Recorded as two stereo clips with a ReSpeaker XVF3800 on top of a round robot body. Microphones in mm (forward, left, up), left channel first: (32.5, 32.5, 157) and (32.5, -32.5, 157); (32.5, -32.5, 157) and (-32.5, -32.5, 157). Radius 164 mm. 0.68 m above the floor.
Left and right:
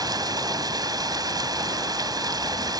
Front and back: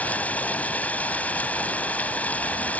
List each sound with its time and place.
0.0 s running water: 70° right